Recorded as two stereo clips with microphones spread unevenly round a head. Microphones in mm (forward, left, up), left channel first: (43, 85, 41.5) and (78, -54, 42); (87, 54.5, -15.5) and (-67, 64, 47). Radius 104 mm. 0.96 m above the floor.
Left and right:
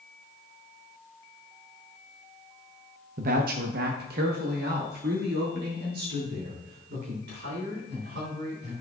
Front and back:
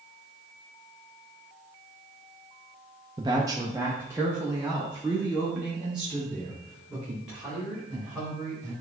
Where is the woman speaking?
110° right, 0.6 m; by 8.7 s 95° right, 3.5 m.